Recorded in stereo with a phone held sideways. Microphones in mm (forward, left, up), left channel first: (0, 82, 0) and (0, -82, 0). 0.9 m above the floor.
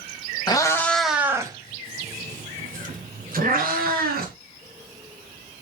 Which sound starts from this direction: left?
A cat meowing, at 0.5 s.